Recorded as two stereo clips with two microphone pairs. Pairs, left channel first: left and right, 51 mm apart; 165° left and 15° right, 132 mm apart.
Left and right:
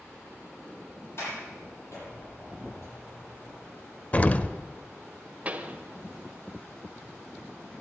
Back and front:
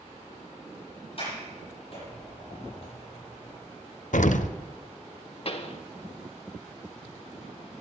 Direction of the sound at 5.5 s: 155° right.